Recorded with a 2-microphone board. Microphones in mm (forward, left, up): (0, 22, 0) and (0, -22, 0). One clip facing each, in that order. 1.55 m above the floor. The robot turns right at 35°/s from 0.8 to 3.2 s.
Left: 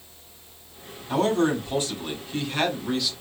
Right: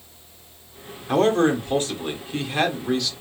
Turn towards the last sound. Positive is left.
turn(degrees=10)